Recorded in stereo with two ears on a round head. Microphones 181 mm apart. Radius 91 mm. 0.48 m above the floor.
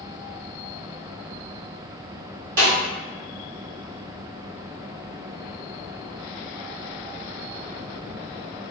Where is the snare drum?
45° right (ahead or behind), 1.7 m.